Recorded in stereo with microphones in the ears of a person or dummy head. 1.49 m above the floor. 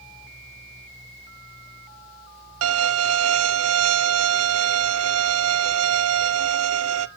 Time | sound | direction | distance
2.6 | a violin | 80° right | 0.7 m